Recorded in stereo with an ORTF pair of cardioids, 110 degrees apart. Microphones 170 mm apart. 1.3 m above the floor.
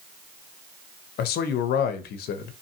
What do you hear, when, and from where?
1.2 s a man speaking: 65° left, 0.5 m